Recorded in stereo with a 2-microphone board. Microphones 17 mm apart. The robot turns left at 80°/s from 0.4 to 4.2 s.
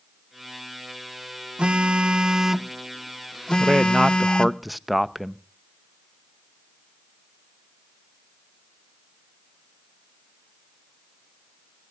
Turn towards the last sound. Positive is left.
turn(degrees=-165)